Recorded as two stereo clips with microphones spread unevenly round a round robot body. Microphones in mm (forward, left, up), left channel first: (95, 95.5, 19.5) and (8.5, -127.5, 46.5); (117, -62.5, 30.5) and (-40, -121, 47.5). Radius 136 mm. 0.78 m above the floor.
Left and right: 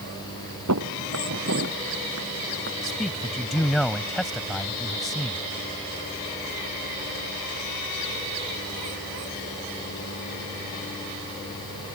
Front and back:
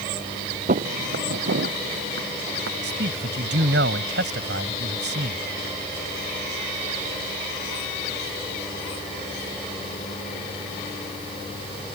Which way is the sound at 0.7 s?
135° right.